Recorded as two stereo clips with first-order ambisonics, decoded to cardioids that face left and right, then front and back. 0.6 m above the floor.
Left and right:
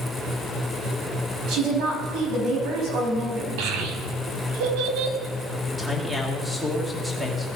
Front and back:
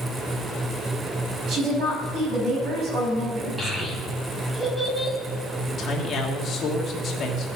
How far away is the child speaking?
About 2 m.